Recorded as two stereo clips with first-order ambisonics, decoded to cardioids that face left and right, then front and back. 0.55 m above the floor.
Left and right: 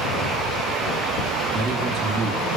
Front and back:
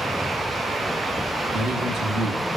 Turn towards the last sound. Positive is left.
turn(degrees=-150)